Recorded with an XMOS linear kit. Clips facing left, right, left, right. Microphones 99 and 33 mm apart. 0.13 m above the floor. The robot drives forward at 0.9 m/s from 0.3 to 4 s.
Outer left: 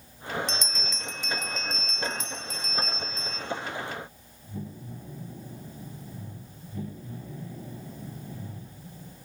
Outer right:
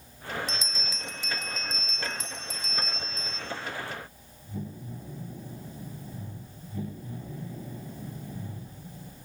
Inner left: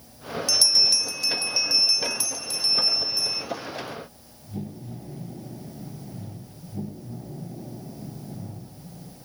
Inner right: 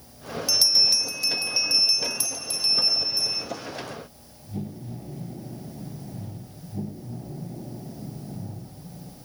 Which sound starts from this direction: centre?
A bell, at 0.5 s.